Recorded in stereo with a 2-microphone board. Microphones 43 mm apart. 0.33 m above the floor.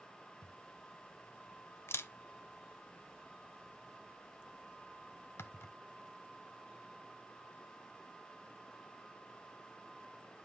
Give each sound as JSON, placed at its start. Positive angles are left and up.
{"t": 0.4, "sound": "a camera shutter", "side_deg": 80, "distance_m": 0.7}